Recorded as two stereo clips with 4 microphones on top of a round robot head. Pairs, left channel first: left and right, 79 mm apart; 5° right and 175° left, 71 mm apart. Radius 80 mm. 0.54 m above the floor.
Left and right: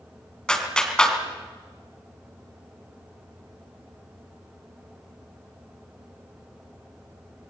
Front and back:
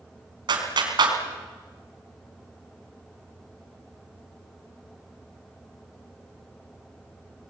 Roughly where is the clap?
Behind.